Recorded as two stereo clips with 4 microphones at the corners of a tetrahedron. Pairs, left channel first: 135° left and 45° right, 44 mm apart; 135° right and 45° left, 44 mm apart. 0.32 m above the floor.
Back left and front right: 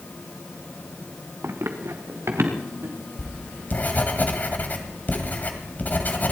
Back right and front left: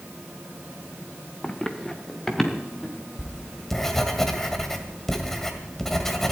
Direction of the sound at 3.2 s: 145° left.